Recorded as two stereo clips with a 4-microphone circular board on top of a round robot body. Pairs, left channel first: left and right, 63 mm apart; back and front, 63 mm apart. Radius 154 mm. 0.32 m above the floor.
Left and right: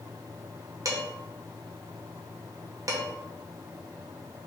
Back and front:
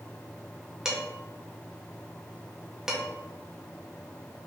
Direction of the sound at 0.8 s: 80° right.